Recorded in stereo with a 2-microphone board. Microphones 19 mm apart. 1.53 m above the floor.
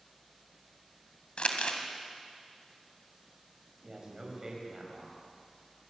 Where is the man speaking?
30° right (ahead or behind), 8 m.